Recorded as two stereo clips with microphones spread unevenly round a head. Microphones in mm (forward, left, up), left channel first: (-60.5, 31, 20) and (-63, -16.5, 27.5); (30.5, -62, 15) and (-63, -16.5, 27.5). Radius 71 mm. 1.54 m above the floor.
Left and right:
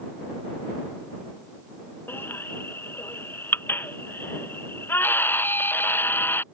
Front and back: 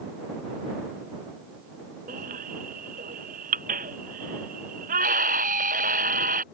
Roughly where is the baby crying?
Behind left.